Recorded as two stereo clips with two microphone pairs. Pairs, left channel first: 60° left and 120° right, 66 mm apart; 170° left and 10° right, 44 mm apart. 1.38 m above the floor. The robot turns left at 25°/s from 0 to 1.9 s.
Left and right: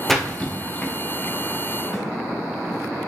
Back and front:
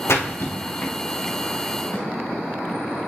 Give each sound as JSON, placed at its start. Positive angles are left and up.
{"t": 0.1, "sound": "a splash", "azimuth_deg": 150, "distance_m": 0.9}
{"t": 1.9, "sound": "a snare drum", "azimuth_deg": 150, "distance_m": 2.5}